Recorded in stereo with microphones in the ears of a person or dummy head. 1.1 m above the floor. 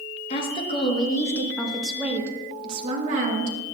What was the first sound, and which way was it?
A woman speaking, 35° left (ahead or behind).